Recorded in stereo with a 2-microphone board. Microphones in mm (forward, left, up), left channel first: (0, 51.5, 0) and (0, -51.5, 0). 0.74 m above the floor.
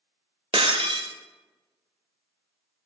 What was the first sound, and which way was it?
Breaking glass, 65° right (ahead or behind).